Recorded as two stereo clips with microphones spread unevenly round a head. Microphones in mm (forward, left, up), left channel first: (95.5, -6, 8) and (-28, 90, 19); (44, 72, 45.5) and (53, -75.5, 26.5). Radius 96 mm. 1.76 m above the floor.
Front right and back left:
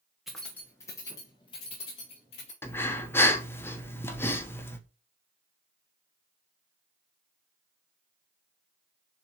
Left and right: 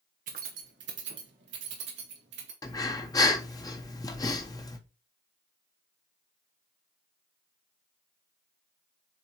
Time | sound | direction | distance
0.3 | keys jangling | 135° right | 0.9 m
2.6 | breathing | 40° left | 1.0 m